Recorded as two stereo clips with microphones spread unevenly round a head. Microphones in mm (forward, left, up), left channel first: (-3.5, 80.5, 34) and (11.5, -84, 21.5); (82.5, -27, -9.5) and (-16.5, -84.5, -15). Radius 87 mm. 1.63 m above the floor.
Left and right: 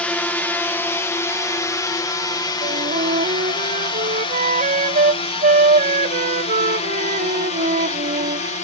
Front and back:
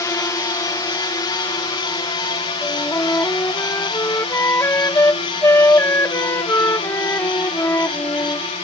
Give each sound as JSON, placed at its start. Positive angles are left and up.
{"t": 0.0, "sound": "a drone", "azimuth_deg": 15}
{"t": 2.6, "sound": "a flute", "azimuth_deg": -35}